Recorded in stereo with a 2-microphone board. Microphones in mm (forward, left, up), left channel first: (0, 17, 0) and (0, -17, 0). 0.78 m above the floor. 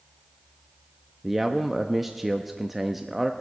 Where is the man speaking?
5° right (ahead or behind), 0.6 m.